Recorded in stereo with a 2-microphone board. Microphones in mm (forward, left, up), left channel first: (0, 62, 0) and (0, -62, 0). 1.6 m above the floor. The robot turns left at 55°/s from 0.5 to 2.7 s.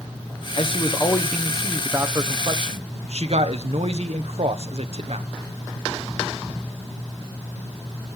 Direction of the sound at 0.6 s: 55° left.